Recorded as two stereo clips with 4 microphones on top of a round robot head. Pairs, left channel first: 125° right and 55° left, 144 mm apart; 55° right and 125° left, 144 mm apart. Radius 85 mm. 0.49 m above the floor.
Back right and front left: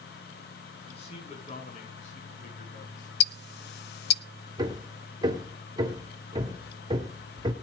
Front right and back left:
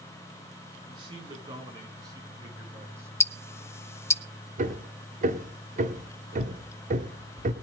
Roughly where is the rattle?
No rattle in this recording.